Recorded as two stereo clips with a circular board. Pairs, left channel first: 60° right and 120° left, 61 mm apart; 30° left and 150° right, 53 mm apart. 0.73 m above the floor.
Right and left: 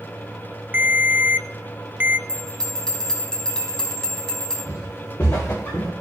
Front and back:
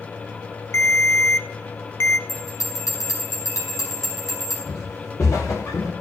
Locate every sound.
0.7 s a ringtone: 60° left, 0.7 m
2.3 s a bell: 20° left, 4.5 m
4.7 s footsteps: 5° right, 5.5 m; by 5.9 s 5° left, 4 m